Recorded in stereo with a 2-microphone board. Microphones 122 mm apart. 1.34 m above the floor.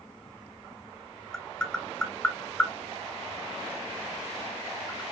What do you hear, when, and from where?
1.3 s tapping: 10° left (ahead or behind), 1.1 m